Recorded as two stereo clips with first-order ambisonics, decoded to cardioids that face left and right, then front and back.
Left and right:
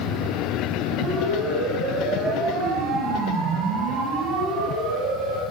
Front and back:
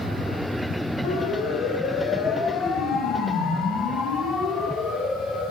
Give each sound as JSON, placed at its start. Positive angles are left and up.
{"t": 1.0, "sound": "a siren", "azimuth_deg": -25, "distance_m": 7.0}